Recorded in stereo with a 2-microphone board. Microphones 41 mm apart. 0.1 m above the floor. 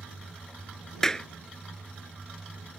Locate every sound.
1.0 s a clap: 15° left (ahead or behind)